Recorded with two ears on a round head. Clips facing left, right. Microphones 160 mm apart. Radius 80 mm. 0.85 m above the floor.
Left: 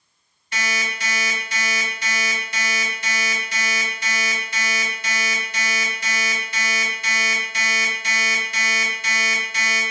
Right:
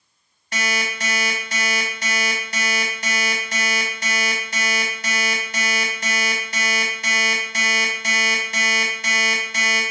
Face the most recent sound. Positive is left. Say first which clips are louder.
# right 3 dB
turn(degrees=-40)  # may be behind; listen again after turning